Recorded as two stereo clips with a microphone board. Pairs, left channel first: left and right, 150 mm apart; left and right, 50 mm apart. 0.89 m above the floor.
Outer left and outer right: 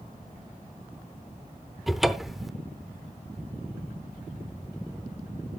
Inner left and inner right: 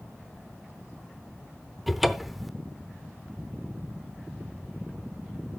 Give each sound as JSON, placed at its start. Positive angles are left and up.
{"t": 1.9, "sound": "a cupboard door", "side_deg": 0, "distance_m": 0.6}